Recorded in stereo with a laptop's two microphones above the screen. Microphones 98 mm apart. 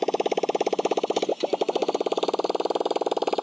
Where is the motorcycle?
Centre (ahead or behind); by 3.4 s 5° right (ahead or behind).